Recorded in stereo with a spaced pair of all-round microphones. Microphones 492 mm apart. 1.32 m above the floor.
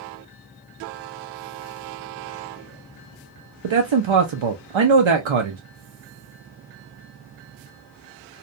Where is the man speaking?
70° right (ahead or behind), 0.5 m.